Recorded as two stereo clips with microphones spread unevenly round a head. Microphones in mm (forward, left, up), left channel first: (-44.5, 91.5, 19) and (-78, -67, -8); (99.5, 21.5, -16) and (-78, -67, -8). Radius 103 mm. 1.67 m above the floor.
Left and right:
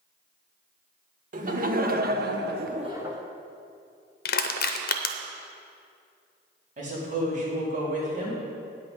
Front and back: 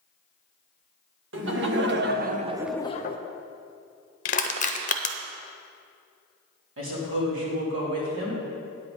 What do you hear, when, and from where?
1.3 s laughter: 140° right, 1.6 m; by 3.2 s 5° right, 0.7 m
4.2 s crushing: 80° left, 0.6 m
6.8 s a woman speaking: 140° right, 3.5 m